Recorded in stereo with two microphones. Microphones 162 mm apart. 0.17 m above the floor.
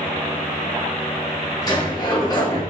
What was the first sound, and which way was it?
A sliding door, 25° left (ahead or behind).